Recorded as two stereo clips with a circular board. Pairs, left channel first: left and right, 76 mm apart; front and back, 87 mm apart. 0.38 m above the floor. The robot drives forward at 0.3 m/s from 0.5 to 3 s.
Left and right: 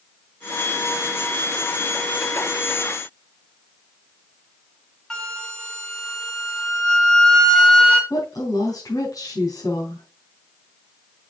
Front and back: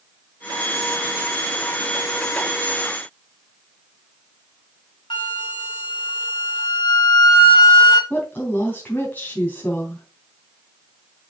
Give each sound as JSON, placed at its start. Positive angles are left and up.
{"t": 5.1, "sound": "a flute", "azimuth_deg": 5, "distance_m": 2.0}
{"t": 8.1, "sound": "a woman speaking", "azimuth_deg": 65, "distance_m": 3.0}